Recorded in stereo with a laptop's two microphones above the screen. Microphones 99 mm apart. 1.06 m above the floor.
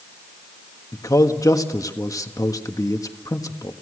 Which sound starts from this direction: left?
A man speaking, at 0.9 s.